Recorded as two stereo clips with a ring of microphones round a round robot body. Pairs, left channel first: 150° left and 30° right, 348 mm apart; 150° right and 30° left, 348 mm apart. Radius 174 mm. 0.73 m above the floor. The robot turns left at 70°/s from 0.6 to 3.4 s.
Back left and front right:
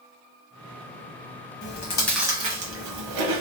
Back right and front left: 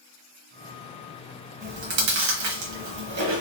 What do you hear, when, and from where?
1.6 s chewing: 100° left, 0.9 m; by 3.4 s 25° right, 0.9 m